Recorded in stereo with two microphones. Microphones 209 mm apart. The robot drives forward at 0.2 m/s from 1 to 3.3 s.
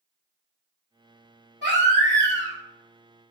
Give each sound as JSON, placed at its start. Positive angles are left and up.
{"t": 1.6, "sound": "a baby crying", "side_deg": -70, "distance_m": 1.8}